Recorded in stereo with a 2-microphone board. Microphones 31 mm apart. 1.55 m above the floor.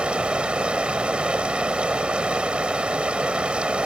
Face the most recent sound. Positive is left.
turn(degrees=-35)  # may be behind; listen again after turning